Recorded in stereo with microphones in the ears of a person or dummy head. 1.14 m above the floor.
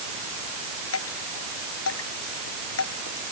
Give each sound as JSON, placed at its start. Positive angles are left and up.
{"t": 0.9, "sound": "dripping", "side_deg": 90}